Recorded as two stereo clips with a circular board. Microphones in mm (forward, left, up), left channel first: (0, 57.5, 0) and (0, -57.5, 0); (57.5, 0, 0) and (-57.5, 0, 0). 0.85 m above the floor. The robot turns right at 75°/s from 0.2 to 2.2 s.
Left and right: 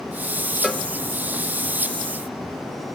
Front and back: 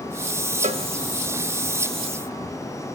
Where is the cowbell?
175° left, 1.5 m; by 0.9 s 165° right, 1.5 m.